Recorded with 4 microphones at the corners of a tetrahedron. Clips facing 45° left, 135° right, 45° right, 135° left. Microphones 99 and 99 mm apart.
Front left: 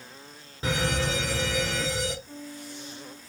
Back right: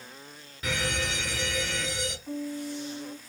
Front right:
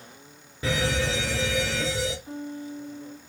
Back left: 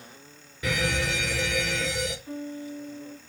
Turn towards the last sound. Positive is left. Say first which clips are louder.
# back right 7 dB, even
turn(degrees=-115)